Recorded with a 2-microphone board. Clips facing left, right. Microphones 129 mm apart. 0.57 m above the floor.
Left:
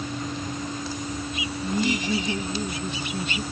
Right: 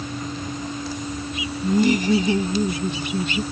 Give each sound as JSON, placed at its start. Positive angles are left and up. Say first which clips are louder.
{"t": 1.6, "sound": "laughter", "louder": "right 7 dB", "side_deg": -50}